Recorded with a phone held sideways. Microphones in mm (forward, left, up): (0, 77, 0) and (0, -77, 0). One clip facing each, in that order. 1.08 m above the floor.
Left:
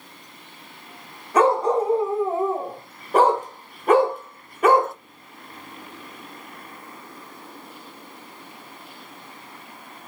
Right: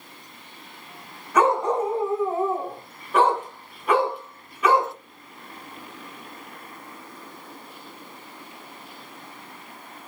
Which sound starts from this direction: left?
A dog barking, at 1.3 s.